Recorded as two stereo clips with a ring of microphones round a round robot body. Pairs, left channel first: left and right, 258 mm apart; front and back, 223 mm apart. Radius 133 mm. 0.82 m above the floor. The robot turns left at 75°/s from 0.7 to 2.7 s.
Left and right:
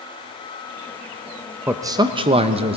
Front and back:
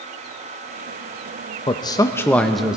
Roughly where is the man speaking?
Ahead.